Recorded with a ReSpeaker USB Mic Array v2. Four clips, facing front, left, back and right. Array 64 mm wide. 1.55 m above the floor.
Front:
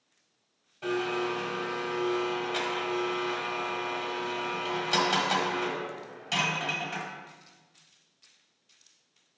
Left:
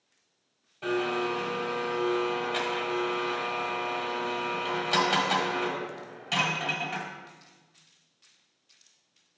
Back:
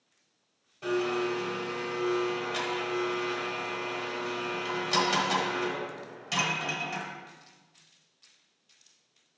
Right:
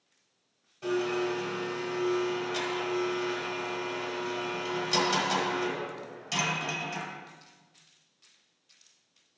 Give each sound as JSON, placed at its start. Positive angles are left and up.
{"t": 0.8, "sound": "a blender", "azimuth_deg": 80, "distance_m": 1.4}